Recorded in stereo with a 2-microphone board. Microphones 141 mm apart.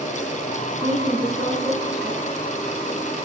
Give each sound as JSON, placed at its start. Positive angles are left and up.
{"t": 0.8, "sound": "a woman speaking", "side_deg": -25, "distance_m": 1.5}